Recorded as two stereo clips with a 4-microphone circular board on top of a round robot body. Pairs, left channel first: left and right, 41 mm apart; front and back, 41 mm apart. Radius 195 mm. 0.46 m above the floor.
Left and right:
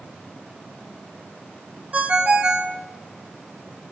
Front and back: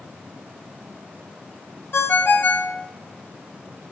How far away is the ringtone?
About 0.6 m.